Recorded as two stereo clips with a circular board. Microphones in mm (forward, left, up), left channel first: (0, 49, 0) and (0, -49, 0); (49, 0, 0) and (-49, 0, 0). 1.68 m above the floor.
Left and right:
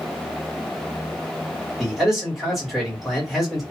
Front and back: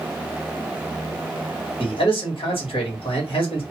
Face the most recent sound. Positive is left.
turn(degrees=0)